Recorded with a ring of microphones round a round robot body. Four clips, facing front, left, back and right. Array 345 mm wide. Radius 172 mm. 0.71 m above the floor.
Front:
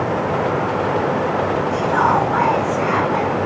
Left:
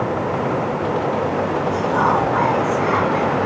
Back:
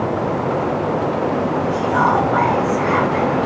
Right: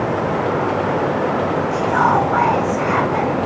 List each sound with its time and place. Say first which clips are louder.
1.7 s whispering: right 2 dB, even; 55° right, 5.5 m